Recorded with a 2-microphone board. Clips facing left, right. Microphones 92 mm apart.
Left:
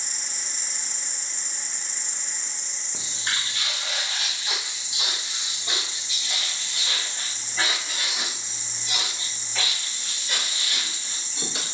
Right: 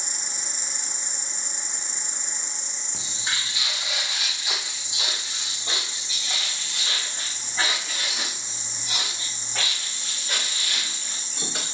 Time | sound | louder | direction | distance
0.0 | an insect | right 2 dB | 60° right (ahead or behind) | 1.9 m
2.9 | footsteps | left 1 dB | centre (ahead or behind) | 1.2 m